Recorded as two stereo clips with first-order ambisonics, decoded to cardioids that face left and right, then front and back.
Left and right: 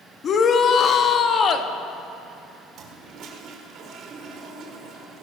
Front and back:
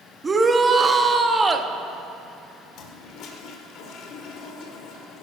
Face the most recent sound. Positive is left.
turn(degrees=-40)